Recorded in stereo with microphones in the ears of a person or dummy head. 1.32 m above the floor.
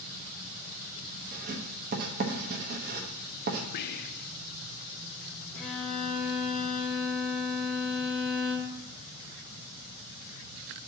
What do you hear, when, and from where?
1.3 s writing: 45° right (ahead or behind), 1.0 m
3.7 s whispering: 45° left (ahead or behind), 0.5 m
5.5 s a violin: 10° left (ahead or behind), 2 m